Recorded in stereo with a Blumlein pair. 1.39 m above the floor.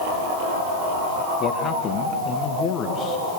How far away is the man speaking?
About 1.7 m.